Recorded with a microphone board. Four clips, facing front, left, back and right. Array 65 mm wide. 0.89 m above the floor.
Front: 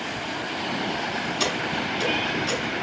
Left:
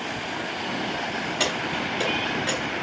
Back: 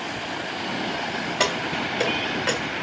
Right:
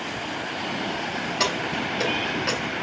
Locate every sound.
1.4 s keys jangling: 175° right, 3 m